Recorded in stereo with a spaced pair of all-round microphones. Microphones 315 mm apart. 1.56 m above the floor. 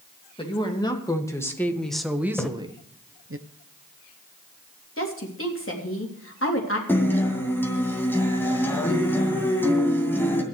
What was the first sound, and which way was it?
A woman speaking, 15° left (ahead or behind).